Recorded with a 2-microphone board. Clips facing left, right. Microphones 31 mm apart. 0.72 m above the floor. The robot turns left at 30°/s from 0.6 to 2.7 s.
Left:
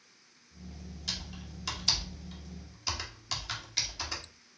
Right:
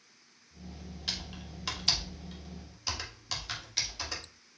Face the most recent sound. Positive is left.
turn(degrees=0)  # may be behind; listen again after turning